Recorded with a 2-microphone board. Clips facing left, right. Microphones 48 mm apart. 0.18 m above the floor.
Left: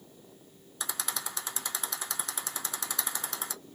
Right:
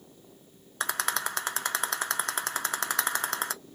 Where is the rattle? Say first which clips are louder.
Right 8 dB; 55° right (ahead or behind), 0.6 m.